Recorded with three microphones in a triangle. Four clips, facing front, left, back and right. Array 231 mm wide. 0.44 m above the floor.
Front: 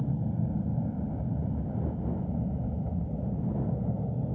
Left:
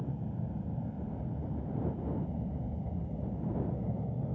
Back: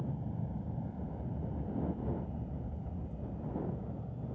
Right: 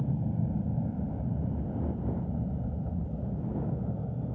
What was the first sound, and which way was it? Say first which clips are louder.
An aircraft: right 6 dB, front 8 dB; 35° right.